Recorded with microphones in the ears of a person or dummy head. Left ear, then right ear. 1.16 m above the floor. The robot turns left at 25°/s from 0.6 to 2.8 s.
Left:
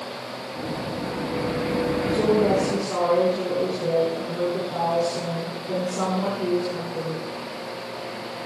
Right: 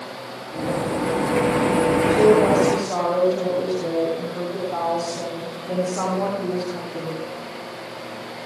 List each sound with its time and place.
2.1 s a woman speaking: 25° right (ahead or behind), 9.5 m; by 7.3 s 45° right (ahead or behind), 9.5 m